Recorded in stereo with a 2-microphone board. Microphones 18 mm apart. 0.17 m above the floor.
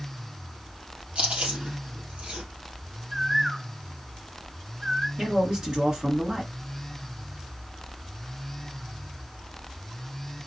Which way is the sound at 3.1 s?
10° right (ahead or behind).